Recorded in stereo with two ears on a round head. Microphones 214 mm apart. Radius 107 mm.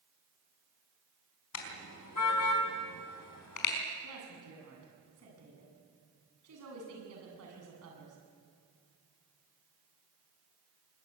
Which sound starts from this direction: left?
A car horn, at 1.5 s.